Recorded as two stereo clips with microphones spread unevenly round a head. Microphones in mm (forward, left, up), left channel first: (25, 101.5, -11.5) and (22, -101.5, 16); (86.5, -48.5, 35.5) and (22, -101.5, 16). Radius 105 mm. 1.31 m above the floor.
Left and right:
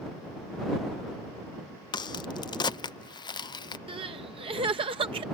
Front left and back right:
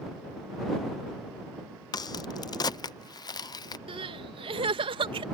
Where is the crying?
160° right.